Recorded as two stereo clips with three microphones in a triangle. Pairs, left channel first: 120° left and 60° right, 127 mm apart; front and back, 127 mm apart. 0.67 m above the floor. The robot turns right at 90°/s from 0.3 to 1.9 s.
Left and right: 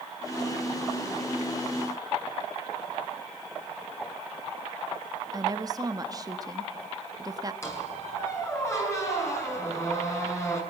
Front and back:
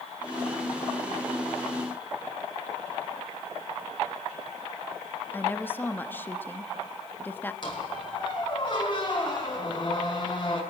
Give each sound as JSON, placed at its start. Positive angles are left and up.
{"t": 5.3, "sound": "a woman speaking", "azimuth_deg": -55, "distance_m": 1.1}
{"t": 7.6, "sound": "a squeak", "azimuth_deg": 50, "distance_m": 5.0}